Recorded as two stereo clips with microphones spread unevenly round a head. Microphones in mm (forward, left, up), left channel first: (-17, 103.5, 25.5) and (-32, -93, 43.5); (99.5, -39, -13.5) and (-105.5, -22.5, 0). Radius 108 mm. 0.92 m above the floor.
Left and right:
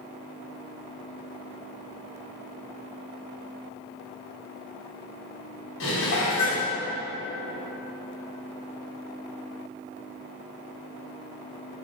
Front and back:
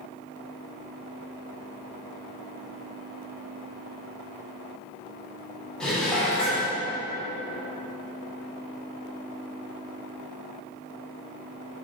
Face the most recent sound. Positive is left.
turn(degrees=85)